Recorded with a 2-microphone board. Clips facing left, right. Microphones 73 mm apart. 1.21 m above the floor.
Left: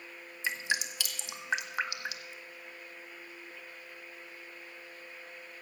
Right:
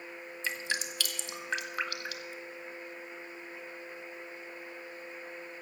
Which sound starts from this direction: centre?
Dripping, at 0.4 s.